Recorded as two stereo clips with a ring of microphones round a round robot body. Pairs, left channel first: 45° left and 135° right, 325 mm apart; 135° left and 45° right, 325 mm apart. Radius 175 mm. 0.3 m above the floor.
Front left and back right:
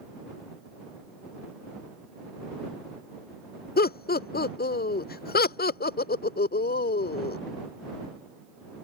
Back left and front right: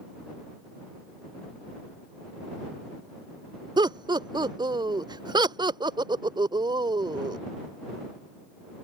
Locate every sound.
3.8 s laughter: 20° left